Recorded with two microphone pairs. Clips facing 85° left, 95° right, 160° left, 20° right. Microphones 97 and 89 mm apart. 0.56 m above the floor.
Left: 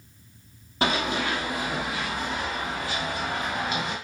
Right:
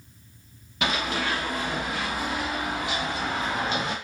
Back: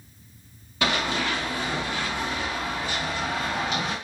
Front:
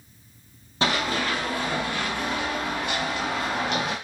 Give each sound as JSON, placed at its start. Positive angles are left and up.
{"t": 0.8, "sound": "running footsteps", "azimuth_deg": 35, "distance_m": 1.1}